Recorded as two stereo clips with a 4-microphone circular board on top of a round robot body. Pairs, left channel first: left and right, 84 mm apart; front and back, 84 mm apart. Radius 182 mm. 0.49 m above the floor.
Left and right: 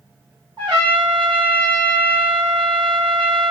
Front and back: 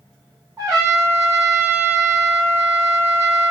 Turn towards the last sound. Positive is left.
turn(degrees=-125)